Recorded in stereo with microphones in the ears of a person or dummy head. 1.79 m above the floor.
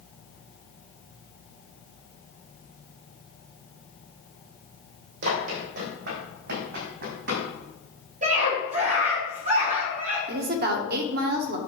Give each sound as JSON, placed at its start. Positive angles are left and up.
{"t": 5.2, "sound": "running footsteps", "side_deg": -65, "distance_m": 4.0}
{"t": 8.2, "sound": "a scream", "side_deg": -45, "distance_m": 3.5}
{"t": 10.3, "sound": "a woman speaking", "side_deg": -55, "distance_m": 1.4}